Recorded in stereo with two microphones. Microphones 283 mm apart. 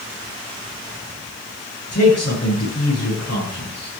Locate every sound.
1.9 s a man speaking: 60° left (ahead or behind), 9 m